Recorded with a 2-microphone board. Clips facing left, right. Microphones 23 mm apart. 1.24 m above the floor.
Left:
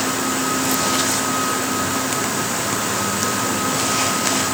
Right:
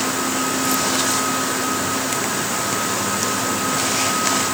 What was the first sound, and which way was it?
Only background noise.